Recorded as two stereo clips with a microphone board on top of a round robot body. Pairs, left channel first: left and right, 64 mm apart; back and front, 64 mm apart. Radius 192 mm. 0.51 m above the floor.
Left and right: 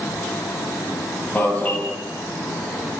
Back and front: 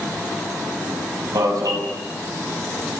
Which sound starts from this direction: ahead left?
An alarm, at 1.4 s.